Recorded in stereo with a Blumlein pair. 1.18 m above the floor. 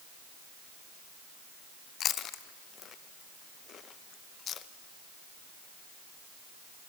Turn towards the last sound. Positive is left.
turn(degrees=30)